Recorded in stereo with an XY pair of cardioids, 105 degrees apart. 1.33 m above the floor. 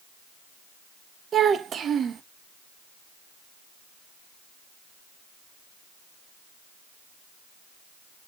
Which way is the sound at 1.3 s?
50° right.